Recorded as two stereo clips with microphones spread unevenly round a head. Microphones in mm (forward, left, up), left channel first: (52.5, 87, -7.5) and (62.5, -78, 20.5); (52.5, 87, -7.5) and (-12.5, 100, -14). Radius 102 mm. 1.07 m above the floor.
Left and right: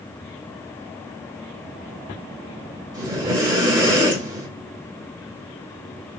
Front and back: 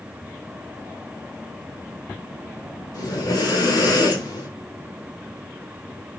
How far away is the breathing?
About 3 m.